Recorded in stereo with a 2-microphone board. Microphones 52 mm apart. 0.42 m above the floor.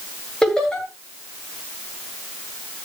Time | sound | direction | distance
0.4 | laughter | 15° left (ahead or behind) | 8 m